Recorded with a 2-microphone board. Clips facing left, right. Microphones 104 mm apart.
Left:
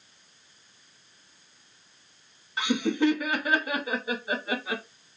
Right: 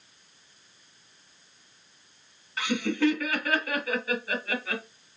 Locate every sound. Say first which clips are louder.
2.6 s laughter: left 1 dB; 20° left (ahead or behind), 1.1 m